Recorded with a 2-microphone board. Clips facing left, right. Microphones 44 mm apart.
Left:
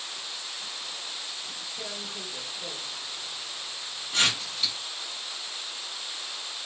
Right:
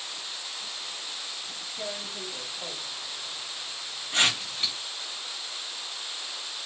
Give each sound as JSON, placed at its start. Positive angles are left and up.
{"t": 1.8, "sound": "tearing paper", "side_deg": -50, "distance_m": 2.5}
{"t": 4.4, "sound": "scissors", "side_deg": -40, "distance_m": 1.8}